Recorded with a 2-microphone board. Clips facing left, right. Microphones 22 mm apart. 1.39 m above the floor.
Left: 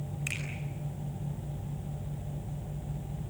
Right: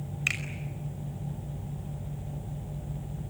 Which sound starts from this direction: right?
A finger snap, at 0.3 s.